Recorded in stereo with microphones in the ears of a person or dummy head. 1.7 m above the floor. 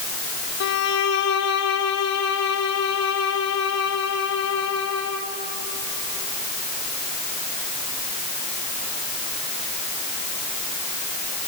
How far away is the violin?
About 1.7 m.